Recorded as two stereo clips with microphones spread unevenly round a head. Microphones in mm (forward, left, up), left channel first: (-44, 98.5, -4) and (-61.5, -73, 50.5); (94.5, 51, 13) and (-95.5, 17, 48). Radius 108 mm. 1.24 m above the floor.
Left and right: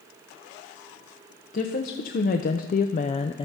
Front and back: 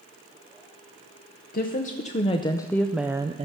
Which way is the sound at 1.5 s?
50° left.